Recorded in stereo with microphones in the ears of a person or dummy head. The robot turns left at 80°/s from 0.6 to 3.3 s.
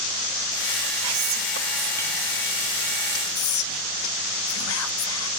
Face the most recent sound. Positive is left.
turn(degrees=75)  # may be behind; listen again after turning